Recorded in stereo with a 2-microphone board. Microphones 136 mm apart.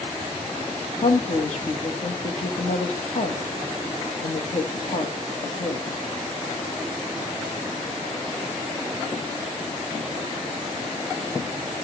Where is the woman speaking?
65° left (ahead or behind), 1.9 m.